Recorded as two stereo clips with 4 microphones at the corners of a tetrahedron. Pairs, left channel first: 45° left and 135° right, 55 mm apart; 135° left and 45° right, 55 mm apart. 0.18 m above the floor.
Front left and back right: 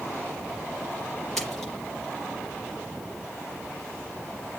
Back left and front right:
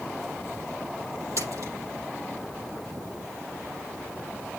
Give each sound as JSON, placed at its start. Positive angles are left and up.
{"t": 1.4, "sound": "a splash", "azimuth_deg": -35, "distance_m": 5.0}